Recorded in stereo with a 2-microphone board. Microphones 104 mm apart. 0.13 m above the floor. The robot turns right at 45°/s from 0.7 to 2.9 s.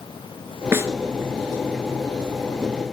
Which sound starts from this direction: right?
A snare drum, at 0.7 s.